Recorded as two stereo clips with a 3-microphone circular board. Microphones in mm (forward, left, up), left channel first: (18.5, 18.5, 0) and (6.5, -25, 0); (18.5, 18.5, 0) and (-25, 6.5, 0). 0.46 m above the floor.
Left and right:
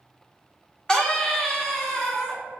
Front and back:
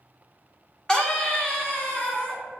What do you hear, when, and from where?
0.9 s a scream: 50° left, 0.7 m